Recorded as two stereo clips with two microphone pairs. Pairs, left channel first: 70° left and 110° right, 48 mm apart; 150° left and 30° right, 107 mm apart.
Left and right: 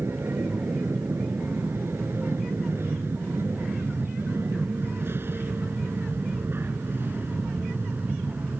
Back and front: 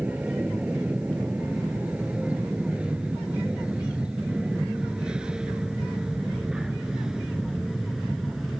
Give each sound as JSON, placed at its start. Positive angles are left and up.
{"t": 0.0, "sound": "an aircraft", "azimuth_deg": -105}